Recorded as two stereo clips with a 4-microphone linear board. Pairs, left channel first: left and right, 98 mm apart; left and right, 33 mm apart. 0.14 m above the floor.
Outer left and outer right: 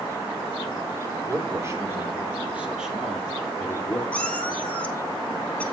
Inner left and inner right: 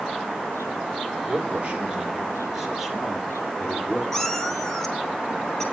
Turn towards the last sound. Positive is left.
turn(degrees=15)  # may be behind; listen again after turning